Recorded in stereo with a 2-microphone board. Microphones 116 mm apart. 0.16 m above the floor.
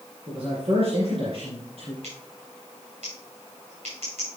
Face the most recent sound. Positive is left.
turn(degrees=-75)  # may be behind; listen again after turning